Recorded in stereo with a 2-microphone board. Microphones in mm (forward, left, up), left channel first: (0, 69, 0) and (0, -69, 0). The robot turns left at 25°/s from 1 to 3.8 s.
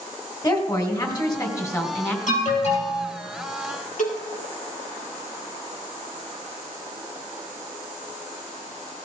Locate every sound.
0.4 s a woman speaking: 30° left (ahead or behind), 1.9 m; by 2.2 s 15° left (ahead or behind), 1.9 m
2.3 s an alarm: 65° left (ahead or behind), 4 m; by 3.0 s 45° left (ahead or behind), 4 m
4.0 s a cowbell: 70° left (ahead or behind), 2.5 m